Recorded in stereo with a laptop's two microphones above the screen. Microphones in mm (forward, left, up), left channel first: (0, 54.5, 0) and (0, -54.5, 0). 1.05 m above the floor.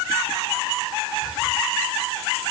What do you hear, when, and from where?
Only background noise.